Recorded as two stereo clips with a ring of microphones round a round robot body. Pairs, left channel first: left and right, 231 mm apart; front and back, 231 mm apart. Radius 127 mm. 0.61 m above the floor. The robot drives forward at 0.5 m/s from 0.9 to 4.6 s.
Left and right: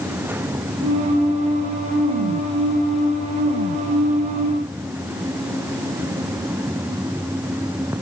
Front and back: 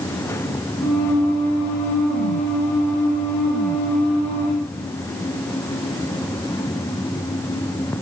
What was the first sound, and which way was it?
Only background noise.